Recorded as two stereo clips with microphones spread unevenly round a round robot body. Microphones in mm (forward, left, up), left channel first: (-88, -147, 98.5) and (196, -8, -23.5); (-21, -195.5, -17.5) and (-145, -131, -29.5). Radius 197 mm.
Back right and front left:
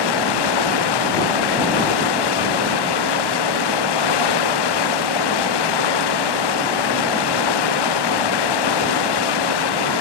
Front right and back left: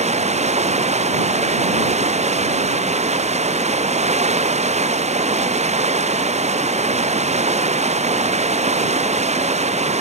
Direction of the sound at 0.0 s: 170° right.